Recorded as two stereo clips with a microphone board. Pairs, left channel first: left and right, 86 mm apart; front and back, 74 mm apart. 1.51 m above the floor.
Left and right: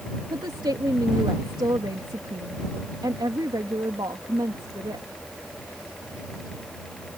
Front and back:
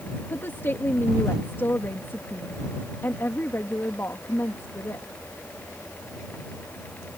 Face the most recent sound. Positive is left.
turn(degrees=-60)